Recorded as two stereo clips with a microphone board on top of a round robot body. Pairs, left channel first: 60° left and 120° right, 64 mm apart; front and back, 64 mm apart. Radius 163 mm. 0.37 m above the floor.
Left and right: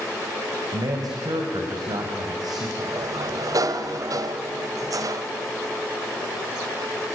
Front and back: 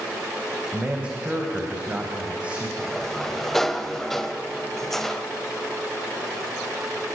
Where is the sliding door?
85° right, 0.9 m.